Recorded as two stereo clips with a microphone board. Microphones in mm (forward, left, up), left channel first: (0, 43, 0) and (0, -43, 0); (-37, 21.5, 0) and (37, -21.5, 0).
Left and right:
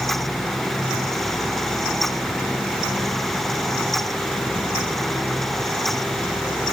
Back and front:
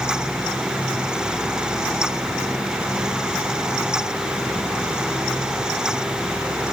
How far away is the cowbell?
No cowbell in this recording.